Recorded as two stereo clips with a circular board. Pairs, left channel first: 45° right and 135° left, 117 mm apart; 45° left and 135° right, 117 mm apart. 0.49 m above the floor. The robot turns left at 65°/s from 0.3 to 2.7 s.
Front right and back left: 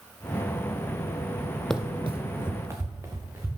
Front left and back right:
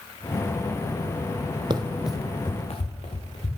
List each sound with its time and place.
1.7 s running footsteps: 130° right, 0.6 m; by 3.5 s 65° left, 2.5 m